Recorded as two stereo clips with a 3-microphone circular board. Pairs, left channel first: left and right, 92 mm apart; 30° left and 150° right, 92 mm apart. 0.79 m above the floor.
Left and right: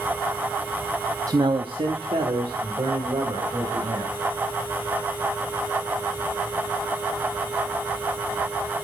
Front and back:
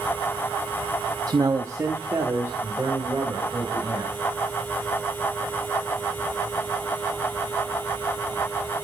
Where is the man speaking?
125° right, 0.6 m; by 4.1 s 80° right, 4 m.